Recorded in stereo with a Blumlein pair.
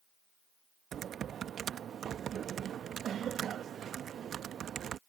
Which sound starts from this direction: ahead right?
Typing on a keyboard, at 0.9 s.